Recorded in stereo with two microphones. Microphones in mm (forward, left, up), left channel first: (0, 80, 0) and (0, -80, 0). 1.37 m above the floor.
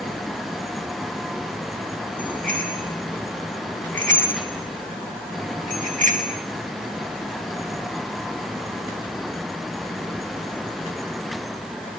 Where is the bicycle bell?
60° right (ahead or behind), 9.5 m; by 6.4 s 55° right (ahead or behind), 6 m.